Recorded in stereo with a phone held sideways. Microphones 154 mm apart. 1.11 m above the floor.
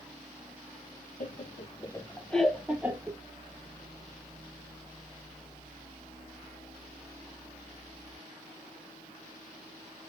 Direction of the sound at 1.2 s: 60° left (ahead or behind).